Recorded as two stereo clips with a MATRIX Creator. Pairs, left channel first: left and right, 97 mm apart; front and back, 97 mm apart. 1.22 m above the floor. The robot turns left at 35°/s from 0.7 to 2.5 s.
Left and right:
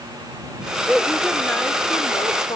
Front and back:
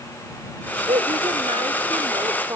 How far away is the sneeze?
No sneeze in this recording.